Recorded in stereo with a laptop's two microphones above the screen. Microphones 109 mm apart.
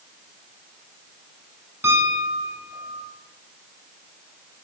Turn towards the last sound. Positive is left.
turn(degrees=-20)  # may be behind; listen again after turning